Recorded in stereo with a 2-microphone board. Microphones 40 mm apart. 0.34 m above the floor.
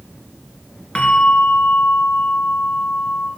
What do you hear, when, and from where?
0.9 s a bell: 30° left (ahead or behind), 1.9 m